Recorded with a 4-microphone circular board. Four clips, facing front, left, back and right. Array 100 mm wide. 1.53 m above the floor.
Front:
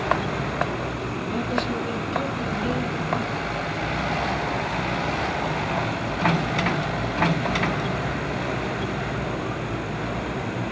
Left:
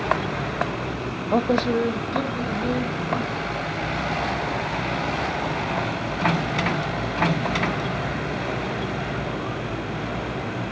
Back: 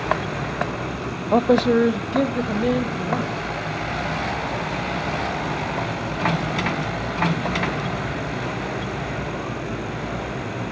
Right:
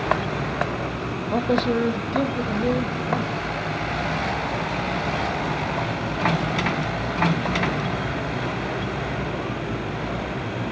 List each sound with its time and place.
1.3 s a man speaking: 155° left, 0.5 m; by 3.5 s 165° right, 3 m